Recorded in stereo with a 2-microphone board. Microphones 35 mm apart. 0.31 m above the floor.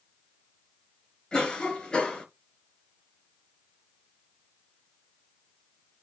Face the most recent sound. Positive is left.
turn(degrees=20)  # may be behind; listen again after turning